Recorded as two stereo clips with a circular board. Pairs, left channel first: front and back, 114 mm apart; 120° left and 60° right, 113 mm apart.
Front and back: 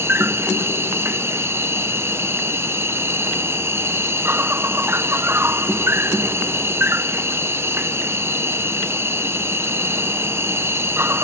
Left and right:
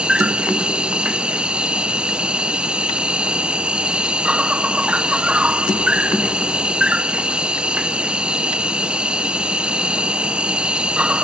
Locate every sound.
0.0 s an insect: 130° right